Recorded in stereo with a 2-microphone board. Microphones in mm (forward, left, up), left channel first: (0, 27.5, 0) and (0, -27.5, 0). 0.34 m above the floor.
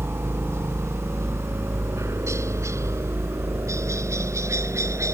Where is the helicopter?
55° right (ahead or behind); by 5.1 s 65° right (ahead or behind).